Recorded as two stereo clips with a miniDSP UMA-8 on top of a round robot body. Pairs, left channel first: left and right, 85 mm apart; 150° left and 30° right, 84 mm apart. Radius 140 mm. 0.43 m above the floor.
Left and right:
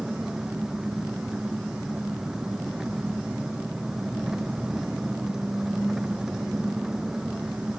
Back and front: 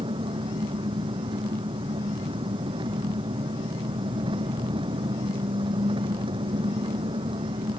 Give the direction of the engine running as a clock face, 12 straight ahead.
12 o'clock.